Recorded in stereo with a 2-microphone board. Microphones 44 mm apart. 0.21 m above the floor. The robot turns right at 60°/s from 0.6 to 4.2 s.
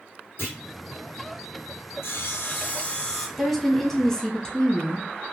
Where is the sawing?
100° left, 1.0 m; by 3.3 s 175° left, 1.0 m.